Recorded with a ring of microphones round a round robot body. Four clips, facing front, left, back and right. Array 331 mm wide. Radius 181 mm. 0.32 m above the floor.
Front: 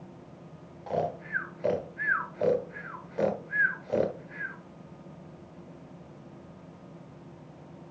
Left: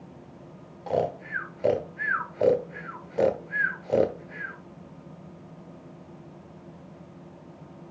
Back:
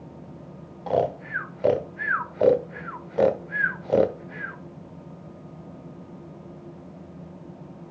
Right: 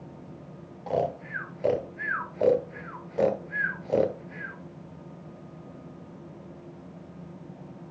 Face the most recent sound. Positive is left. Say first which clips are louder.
# left 1 dB, back 7 dB
turn(degrees=170)